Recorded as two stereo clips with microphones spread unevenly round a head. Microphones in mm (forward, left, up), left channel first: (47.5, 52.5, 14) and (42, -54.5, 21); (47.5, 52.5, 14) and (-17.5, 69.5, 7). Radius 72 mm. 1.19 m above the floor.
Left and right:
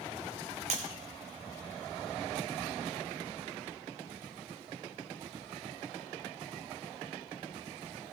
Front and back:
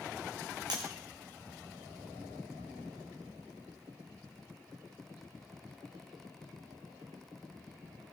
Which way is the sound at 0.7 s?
135° right.